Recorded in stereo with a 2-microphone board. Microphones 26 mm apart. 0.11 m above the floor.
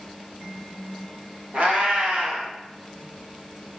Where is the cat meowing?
45° right (ahead or behind), 1.2 m.